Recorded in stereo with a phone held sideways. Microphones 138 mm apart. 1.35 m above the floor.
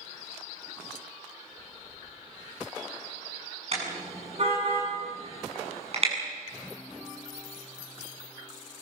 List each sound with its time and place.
3.7 s a car horn: 50° right (ahead or behind), 7.5 m